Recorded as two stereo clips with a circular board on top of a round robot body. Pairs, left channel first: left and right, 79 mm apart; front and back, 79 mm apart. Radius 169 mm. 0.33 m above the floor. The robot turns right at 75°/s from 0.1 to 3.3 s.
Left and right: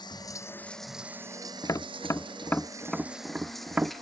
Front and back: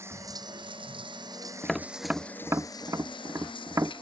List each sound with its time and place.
0.0 s running water: 120° left; by 4.0 s straight ahead
1.6 s tapping: 80° left; by 4.0 s 155° right